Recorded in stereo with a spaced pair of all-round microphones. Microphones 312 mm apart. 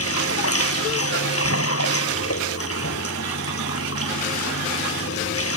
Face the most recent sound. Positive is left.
turn(degrees=45)  # may be behind; listen again after turning